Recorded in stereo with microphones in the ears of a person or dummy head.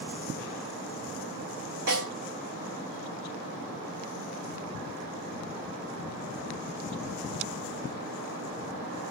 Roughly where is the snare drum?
Right.